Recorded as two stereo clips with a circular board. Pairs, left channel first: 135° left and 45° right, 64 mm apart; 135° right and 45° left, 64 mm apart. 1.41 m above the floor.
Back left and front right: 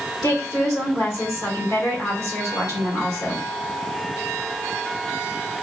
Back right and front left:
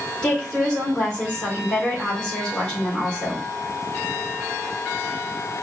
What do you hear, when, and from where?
0.2 s a woman speaking: 145° left, 1.9 m